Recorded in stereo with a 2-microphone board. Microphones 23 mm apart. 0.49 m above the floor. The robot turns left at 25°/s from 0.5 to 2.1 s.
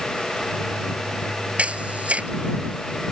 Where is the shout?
No shout in this recording.